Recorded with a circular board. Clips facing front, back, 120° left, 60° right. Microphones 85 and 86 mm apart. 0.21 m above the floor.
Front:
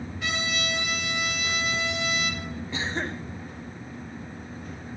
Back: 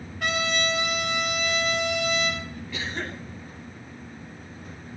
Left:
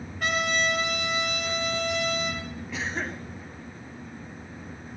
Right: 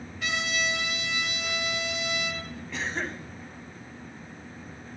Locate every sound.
0.2 s a trumpet: 155° left, 4.5 m
2.7 s a cough: 35° left, 1.8 m